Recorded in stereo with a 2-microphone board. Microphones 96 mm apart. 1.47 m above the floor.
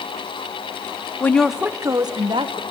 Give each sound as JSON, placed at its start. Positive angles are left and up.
{"t": 1.2, "sound": "a woman speaking", "side_deg": 20, "distance_m": 1.0}